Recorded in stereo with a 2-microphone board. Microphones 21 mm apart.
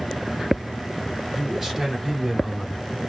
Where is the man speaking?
5° right (ahead or behind), 4 m; by 2.9 s 10° right (ahead or behind), 3 m.